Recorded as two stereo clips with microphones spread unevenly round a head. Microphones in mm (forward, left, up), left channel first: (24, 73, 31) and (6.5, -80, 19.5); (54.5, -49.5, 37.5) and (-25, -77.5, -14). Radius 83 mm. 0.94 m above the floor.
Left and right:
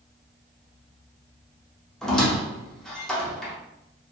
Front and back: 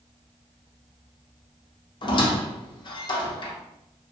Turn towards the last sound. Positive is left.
turn(degrees=0)